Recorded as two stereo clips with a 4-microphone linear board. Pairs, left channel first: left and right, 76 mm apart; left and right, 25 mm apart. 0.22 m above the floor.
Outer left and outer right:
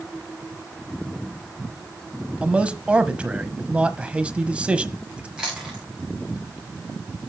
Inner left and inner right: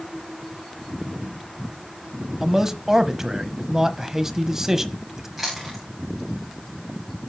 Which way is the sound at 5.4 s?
10° right (ahead or behind).